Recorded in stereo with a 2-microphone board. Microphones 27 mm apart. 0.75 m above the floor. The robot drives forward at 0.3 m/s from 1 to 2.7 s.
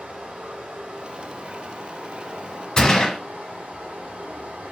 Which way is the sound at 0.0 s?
65° right (ahead or behind).